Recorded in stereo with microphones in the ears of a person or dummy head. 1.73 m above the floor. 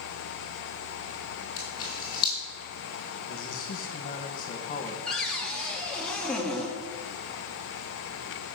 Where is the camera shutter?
25° left (ahead or behind), 6 m.